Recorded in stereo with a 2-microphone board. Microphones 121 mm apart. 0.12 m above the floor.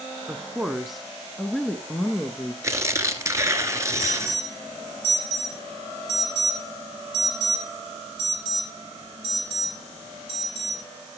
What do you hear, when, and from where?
0.3 s a woman speaking: 10° right (ahead or behind), 1.0 m; by 2.5 s 10° left (ahead or behind), 1.6 m
2.6 s tearing paper: 25° right (ahead or behind), 1.4 m
4.0 s an alarm: 45° right (ahead or behind), 3.5 m